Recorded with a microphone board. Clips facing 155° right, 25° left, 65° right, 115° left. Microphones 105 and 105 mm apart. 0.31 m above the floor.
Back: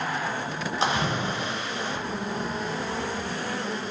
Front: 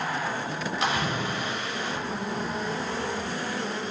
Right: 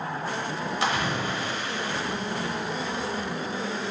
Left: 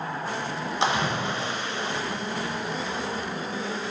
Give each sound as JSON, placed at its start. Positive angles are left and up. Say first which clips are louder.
{"t": 0.8, "sound": "a splash", "louder": "back 2 dB, left 2 dB", "azimuth_deg": 160, "distance_m": 0.6}